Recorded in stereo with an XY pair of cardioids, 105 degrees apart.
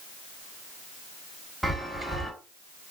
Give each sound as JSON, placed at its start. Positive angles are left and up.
{"t": 1.6, "sound": "a chime", "azimuth_deg": -10, "distance_m": 1.3}